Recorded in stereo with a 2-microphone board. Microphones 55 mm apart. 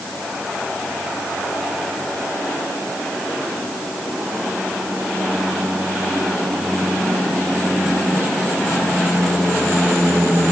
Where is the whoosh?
I don't hear a whoosh.